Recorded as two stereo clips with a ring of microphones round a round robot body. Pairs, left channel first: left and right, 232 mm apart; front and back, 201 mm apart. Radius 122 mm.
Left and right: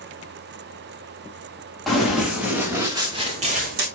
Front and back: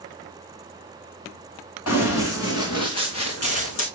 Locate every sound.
1.9 s running footsteps: straight ahead, 4 m; by 3.9 s 45° right, 1.9 m